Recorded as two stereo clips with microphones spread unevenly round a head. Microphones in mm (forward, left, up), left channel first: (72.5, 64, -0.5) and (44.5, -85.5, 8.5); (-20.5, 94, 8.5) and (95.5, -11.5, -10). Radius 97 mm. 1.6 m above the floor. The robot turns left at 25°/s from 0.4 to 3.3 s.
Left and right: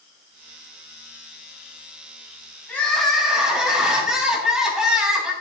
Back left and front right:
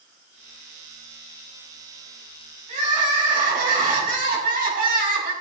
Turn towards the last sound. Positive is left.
turn(degrees=-15)